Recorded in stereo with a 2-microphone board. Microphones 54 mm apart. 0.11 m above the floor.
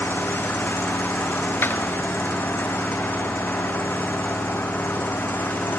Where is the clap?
40° left (ahead or behind), 1.4 m.